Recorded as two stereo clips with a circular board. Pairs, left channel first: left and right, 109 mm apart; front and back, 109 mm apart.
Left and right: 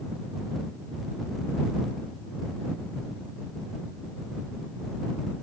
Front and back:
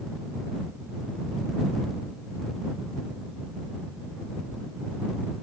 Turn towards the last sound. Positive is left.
No sound to turn to.